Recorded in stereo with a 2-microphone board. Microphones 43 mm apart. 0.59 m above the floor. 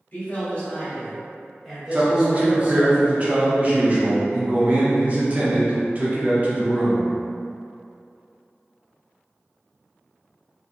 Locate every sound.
0.1 s a man speaking: 40° left (ahead or behind), 1.4 m; by 2.9 s 30° right (ahead or behind), 1.2 m
1.9 s a man speaking: 30° right (ahead or behind), 0.7 m